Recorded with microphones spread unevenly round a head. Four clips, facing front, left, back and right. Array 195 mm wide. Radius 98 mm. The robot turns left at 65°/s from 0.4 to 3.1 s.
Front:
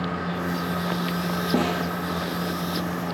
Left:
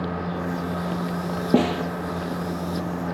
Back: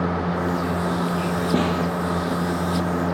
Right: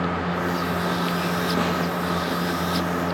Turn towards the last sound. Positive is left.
turn(degrees=-5)